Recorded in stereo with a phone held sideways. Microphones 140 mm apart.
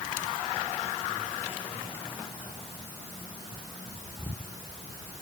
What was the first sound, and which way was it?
Only background noise.